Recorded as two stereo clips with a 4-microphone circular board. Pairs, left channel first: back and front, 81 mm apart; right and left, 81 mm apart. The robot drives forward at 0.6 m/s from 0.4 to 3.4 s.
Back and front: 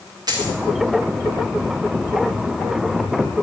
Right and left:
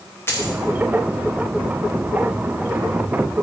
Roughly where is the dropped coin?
Ahead right.